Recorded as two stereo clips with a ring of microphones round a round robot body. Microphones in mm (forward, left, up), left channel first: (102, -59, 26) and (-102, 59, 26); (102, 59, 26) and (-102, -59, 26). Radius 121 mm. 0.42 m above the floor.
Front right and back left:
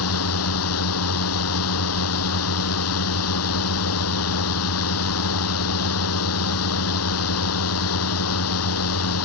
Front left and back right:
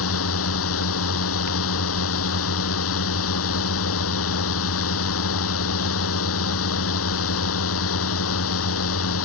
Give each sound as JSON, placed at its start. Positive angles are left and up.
{"t": 0.0, "sound": "a drone", "azimuth_deg": -5}